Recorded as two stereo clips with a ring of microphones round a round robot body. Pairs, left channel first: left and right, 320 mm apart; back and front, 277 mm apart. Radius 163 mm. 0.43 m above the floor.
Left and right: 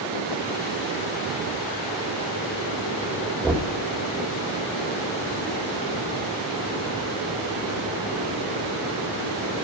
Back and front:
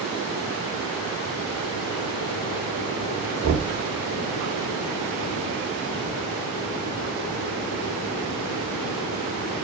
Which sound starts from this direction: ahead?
Knocking, at 3.4 s.